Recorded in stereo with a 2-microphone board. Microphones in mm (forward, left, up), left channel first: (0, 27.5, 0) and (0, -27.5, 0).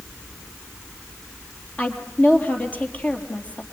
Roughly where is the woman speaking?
Left.